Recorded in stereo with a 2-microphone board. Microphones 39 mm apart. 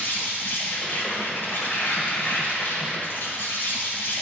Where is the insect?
70° left (ahead or behind), 1.5 m.